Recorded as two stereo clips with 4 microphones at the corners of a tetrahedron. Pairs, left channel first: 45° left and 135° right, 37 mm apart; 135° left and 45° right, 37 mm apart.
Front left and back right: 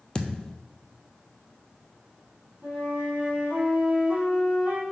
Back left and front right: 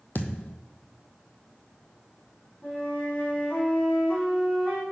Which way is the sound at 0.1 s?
115° left.